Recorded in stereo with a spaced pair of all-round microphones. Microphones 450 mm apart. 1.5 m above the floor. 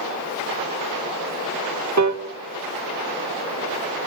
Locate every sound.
2.0 s a piano: 40° right (ahead or behind), 1.2 m